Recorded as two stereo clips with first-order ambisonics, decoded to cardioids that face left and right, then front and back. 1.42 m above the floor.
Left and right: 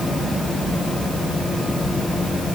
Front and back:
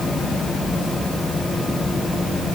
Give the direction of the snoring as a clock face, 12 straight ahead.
No snoring in this recording.